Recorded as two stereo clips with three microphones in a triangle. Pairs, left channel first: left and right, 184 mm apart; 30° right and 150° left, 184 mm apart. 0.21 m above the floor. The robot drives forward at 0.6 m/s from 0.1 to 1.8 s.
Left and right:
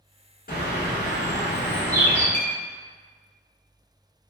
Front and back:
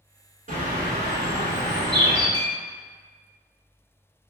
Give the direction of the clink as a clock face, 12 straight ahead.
7 o'clock.